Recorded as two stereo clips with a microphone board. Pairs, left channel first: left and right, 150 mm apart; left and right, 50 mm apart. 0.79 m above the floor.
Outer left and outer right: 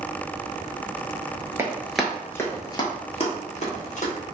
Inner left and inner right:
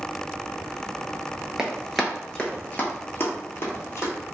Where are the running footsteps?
15° right (ahead or behind), 0.8 m; by 4.1 s 55° left (ahead or behind), 1.4 m.